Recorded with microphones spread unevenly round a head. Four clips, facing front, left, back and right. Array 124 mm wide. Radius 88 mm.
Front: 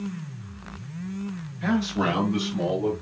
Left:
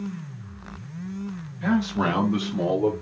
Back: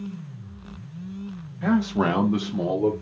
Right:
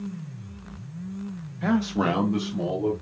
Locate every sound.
1.6 s a man speaking: 125° right, 0.8 m; by 2.9 s 105° left, 1.0 m